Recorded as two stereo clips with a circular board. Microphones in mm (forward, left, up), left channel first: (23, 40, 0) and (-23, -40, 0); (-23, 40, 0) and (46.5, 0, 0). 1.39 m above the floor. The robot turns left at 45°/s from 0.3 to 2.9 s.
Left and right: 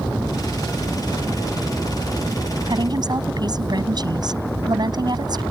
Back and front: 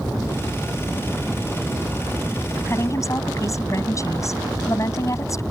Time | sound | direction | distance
2.7 | a woman speaking | 150° right | ?